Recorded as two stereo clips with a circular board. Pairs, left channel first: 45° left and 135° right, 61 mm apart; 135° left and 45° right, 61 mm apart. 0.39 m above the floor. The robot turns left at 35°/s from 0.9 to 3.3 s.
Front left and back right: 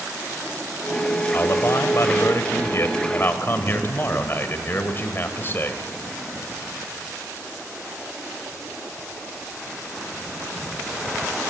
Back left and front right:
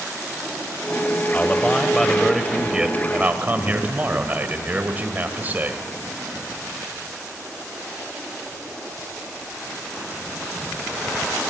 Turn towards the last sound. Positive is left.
turn(degrees=5)